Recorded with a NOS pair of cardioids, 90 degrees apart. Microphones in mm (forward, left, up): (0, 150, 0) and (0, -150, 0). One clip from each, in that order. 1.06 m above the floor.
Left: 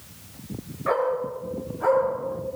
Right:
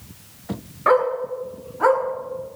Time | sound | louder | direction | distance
0.9 | a dog barking | right 6 dB | 70° right | 6 m